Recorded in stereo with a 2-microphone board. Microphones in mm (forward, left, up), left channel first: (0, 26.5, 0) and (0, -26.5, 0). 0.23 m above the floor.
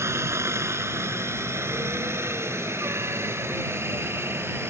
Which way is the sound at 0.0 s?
60° right (ahead or behind).